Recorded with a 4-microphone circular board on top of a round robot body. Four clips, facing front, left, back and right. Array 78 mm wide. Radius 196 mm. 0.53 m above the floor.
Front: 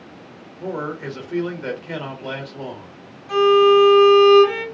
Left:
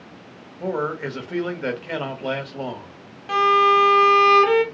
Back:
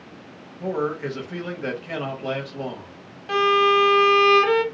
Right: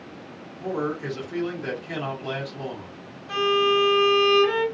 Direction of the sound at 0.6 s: 95° left.